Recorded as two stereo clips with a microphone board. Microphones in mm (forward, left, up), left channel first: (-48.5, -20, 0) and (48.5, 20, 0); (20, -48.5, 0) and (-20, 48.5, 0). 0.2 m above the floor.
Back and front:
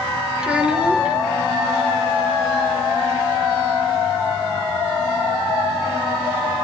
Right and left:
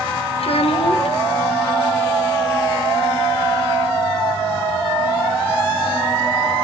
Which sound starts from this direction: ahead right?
A child speaking, at 0.4 s.